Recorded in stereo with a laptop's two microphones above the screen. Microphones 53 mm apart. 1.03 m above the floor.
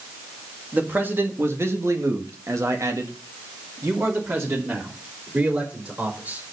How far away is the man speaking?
About 1.9 m.